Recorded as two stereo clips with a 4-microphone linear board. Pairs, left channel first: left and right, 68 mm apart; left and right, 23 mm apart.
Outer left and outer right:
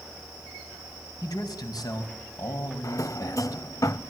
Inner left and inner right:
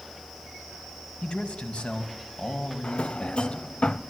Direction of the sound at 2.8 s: 55° left (ahead or behind).